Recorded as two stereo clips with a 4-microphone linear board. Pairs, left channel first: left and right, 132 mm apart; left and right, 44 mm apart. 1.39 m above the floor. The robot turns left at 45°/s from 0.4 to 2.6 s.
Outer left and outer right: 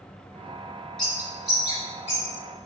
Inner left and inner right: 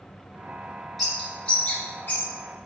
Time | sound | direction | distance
1.0 | a bird | 5° left (ahead or behind) | 2 m